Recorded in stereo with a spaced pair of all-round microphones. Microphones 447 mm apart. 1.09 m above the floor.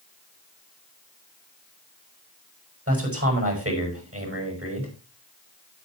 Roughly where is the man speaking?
Right.